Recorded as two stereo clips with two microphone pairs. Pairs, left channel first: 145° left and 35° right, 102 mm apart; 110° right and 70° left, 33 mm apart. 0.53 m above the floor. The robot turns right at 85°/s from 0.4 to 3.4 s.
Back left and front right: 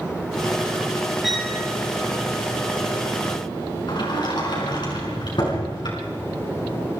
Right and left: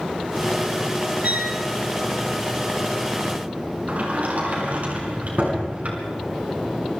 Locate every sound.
1.2 s a violin: 50° left, 5 m; by 1.6 s 75° left, 5 m
3.9 s a sliding door: 105° left, 6 m